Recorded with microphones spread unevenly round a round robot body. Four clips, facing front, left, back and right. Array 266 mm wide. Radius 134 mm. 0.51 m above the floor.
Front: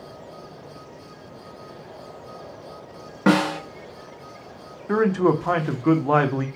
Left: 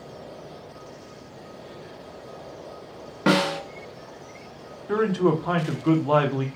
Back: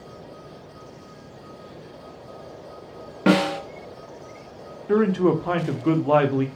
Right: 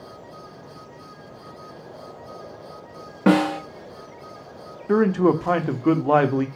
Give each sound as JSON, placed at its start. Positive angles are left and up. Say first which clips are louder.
{"t": 3.3, "sound": "a snare drum", "louder": "right 3 dB, even", "azimuth_deg": -90, "distance_m": 0.9}
{"t": 4.9, "sound": "a man speaking", "louder": "right 3 dB, even", "azimuth_deg": -90, "distance_m": 0.8}